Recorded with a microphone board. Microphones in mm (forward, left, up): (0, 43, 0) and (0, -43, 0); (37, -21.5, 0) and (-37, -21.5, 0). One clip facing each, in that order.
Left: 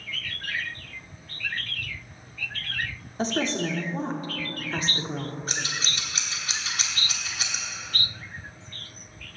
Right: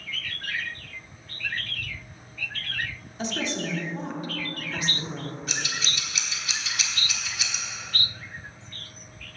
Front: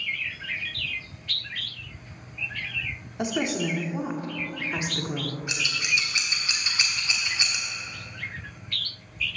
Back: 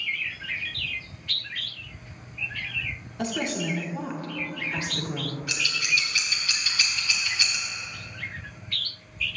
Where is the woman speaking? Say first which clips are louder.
Left 4 dB, front 2 dB; 60° left, 1.1 m.